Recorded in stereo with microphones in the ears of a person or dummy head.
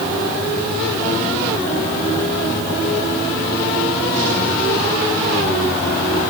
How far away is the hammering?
I don't hear hammering.